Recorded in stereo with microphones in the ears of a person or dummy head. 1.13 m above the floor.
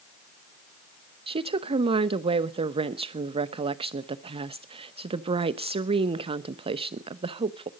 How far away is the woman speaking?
About 0.8 m.